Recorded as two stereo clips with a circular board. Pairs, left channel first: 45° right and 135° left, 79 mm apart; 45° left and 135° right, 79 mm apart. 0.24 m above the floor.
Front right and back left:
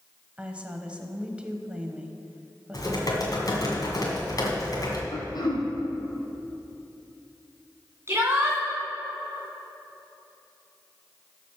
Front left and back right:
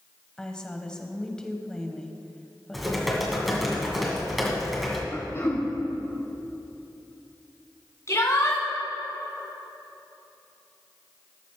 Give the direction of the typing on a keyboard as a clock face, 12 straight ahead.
2 o'clock.